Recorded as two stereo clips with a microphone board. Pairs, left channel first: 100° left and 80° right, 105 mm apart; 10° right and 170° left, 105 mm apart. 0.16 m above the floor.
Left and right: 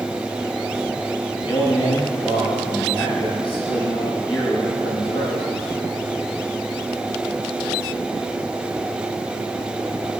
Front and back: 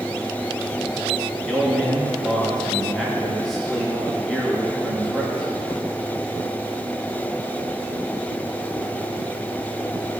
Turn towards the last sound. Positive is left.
turn(degrees=75)